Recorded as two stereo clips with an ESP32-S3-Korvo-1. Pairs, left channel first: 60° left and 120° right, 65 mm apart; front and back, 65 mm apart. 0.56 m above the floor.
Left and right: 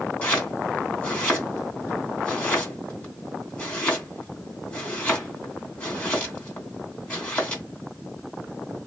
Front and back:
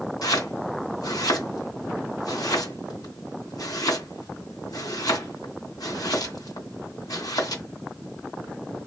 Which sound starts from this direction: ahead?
Chopping, at 0.2 s.